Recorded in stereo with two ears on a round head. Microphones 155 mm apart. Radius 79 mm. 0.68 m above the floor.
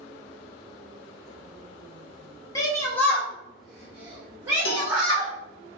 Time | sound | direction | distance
2.5 | a shout | 20° left (ahead or behind) | 1.0 m
4.7 | a cowbell | 55° left (ahead or behind) | 0.9 m